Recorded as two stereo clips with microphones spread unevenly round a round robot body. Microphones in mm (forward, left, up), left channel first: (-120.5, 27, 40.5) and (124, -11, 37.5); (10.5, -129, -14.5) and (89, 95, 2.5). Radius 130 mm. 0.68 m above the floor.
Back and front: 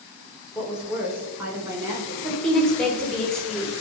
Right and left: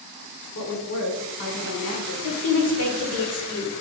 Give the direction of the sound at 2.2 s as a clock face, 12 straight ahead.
3 o'clock.